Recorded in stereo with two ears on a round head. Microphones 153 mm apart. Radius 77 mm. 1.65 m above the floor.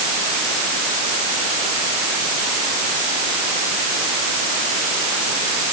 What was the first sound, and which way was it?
Only background noise.